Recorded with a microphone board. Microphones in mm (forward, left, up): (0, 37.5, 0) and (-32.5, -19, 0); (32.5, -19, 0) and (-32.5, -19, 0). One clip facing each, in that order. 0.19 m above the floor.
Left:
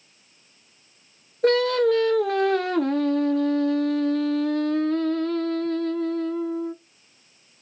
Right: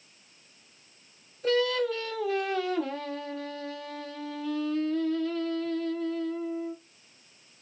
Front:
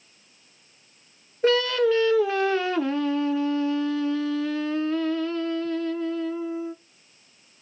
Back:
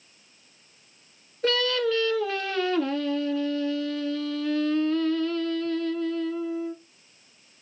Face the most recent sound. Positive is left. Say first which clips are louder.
# left 7 dB, front 4 dB
turn(degrees=65)